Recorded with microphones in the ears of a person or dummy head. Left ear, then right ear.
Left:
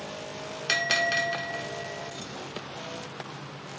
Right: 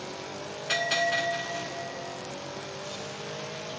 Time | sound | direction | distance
0.7 | a bell | 85° left | 0.7 m